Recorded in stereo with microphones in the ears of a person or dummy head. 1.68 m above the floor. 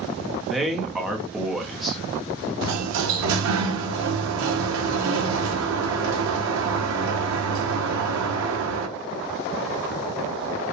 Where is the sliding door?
80° right, 0.9 m.